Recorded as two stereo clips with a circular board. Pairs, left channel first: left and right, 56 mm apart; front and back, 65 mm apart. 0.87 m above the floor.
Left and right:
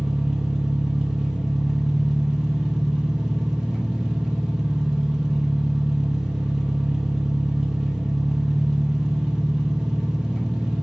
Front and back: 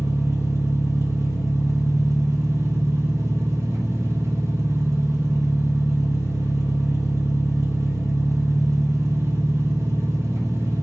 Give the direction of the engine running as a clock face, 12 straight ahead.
6 o'clock.